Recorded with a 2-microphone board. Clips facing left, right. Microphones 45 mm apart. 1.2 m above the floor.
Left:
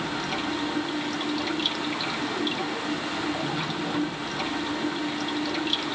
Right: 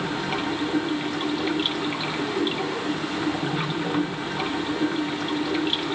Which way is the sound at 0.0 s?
25° right (ahead or behind).